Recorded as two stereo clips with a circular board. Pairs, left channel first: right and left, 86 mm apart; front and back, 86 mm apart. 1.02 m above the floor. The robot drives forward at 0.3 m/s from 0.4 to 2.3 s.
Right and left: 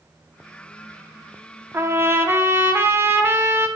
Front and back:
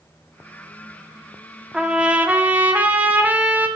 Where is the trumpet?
105° left, 0.9 m; by 3.7 s 125° left, 0.9 m.